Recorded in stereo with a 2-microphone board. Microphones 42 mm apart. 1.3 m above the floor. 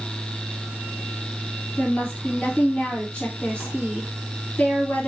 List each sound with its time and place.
1.8 s a woman speaking: 25° left (ahead or behind), 2 m